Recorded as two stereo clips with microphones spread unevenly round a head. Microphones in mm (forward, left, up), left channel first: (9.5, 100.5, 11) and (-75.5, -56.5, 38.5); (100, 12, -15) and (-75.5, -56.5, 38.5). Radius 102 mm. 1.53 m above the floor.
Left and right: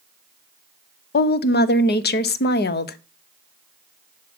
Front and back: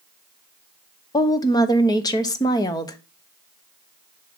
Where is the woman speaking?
90° left, 0.8 m.